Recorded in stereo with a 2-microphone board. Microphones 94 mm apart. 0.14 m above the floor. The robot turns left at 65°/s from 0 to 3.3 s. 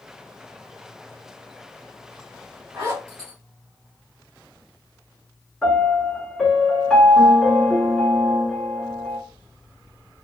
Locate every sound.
2.7 s a zipper: 25° right (ahead or behind), 1.8 m; by 3.3 s 40° right (ahead or behind), 1.8 m
5.6 s a piano: 5° left (ahead or behind), 1.1 m